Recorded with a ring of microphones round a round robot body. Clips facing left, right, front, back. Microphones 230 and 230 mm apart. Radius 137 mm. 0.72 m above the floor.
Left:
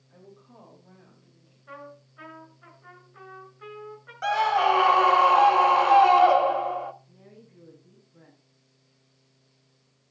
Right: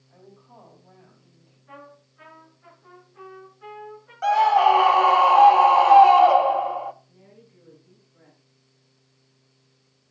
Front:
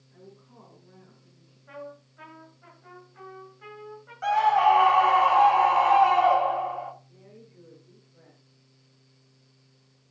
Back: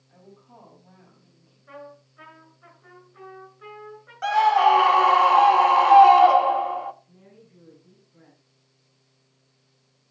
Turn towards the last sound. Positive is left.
turn(degrees=125)